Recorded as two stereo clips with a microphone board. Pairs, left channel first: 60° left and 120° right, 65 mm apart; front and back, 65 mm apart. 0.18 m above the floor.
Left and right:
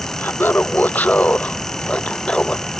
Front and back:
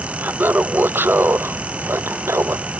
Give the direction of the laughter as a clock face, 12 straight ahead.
8 o'clock.